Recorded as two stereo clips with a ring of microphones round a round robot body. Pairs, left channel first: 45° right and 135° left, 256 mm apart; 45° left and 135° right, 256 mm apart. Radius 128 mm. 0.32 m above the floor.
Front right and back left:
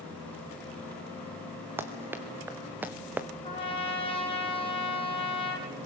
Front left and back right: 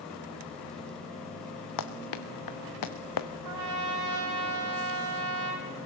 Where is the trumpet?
115° right, 4.5 m.